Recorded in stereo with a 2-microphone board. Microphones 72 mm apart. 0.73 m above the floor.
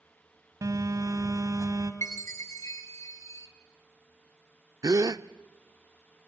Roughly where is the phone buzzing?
Right.